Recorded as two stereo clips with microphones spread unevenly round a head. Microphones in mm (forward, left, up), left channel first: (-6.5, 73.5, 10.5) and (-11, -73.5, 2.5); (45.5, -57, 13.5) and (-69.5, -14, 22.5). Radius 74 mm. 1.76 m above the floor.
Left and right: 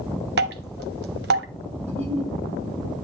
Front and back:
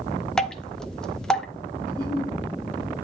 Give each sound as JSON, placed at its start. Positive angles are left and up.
{"t": 0.4, "sound": "dripping", "azimuth_deg": -105, "distance_m": 1.3}
{"t": 1.9, "sound": "a giggle", "azimuth_deg": -140, "distance_m": 6.5}